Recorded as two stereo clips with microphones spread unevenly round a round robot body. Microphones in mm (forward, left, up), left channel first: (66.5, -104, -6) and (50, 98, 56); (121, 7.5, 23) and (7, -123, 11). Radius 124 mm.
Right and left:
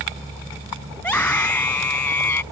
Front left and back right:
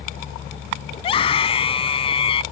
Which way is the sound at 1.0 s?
5° right.